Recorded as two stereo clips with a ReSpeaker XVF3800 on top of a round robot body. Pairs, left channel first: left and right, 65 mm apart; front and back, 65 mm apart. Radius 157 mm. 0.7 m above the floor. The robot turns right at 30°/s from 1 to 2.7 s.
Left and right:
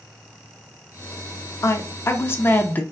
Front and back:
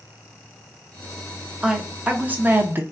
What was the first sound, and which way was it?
A woman speaking, 105° left.